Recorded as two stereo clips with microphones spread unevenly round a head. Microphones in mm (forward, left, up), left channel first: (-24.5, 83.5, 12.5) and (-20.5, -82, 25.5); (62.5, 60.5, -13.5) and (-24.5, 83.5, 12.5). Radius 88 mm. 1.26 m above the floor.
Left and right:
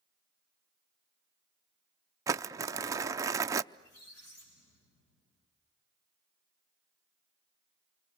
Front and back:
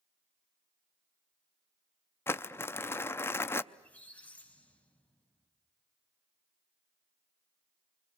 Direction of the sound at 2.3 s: 20° right.